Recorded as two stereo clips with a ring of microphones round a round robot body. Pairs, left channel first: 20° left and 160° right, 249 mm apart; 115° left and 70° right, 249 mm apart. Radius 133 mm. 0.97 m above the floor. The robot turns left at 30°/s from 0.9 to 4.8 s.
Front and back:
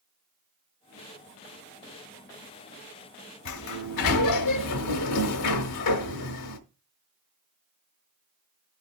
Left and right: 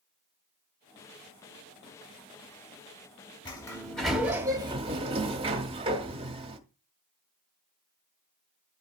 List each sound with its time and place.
3.5 s a sliding door: 40° left, 1.0 m; by 6.6 s straight ahead, 1.0 m